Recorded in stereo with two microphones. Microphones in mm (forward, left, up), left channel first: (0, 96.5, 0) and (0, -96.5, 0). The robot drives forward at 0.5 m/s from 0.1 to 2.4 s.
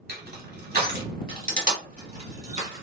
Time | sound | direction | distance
0.1 | crushing | 55° right (ahead or behind) | 1.2 m